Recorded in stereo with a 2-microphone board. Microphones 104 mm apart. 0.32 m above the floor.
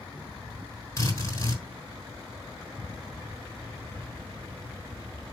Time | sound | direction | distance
1.0 | a drill | 30° left (ahead or behind) | 4 m